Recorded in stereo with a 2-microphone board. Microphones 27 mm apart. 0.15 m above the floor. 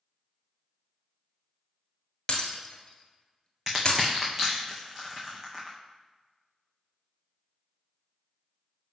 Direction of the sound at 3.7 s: 20° right (ahead or behind).